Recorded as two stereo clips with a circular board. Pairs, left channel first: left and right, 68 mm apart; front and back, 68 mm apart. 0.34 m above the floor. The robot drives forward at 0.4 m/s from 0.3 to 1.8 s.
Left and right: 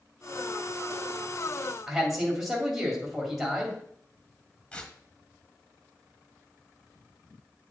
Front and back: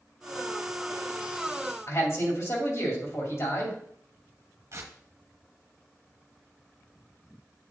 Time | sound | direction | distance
1.9 | a man speaking | 10° right | 2 m
4.7 | tearing paper | 155° left | 1.4 m